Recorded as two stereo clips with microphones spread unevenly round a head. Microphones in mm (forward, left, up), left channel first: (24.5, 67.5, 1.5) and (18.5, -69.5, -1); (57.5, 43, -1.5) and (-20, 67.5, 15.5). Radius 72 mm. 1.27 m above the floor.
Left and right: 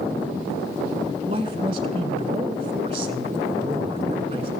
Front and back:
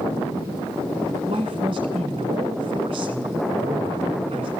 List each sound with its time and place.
1.3 s a man speaking: 150° right, 1.5 m